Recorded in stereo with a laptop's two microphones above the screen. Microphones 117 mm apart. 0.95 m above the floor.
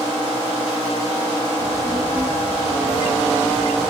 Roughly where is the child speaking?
Centre.